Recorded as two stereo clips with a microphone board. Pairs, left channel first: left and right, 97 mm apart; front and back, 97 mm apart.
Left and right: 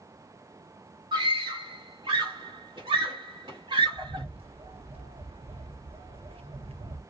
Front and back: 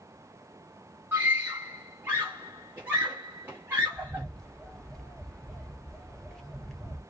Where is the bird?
85° right, 0.7 m.